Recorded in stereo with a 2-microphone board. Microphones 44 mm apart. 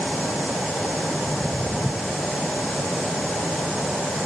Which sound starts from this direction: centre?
Footsteps, at 1.2 s.